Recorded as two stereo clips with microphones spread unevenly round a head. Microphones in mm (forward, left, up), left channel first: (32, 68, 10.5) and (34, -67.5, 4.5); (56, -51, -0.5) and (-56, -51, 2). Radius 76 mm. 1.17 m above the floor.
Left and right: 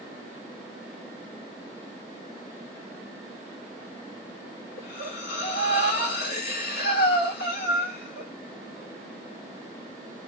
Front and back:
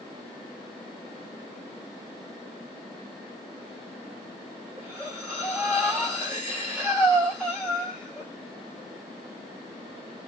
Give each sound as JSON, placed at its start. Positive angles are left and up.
{"t": 4.8, "sound": "breathing", "azimuth_deg": 85, "distance_m": 2.0}